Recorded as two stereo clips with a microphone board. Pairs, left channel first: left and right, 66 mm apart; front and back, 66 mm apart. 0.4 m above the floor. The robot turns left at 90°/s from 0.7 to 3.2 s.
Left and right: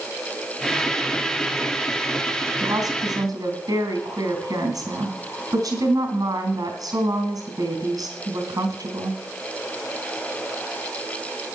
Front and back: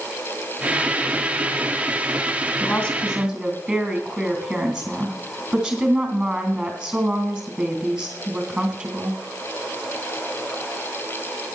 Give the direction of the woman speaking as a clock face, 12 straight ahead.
2 o'clock.